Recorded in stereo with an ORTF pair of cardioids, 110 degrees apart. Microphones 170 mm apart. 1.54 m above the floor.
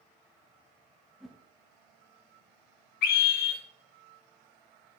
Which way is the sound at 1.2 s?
Straight ahead.